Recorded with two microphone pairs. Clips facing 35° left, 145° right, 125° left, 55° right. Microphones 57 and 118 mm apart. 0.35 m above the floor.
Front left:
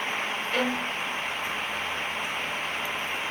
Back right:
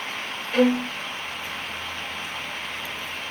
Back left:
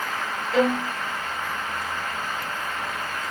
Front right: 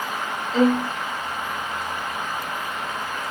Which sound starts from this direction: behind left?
A violin, at 0.5 s.